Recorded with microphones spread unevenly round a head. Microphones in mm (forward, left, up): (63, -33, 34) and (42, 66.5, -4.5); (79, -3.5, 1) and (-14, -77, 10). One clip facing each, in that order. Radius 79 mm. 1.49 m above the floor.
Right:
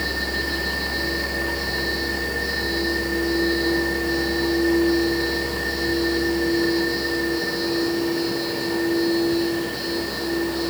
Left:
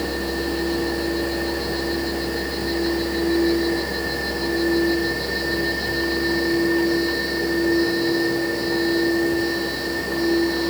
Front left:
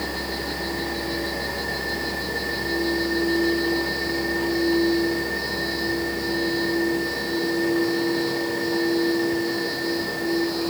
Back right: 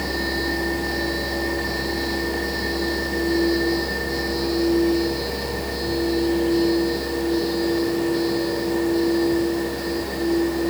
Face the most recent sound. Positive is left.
No sound to turn to.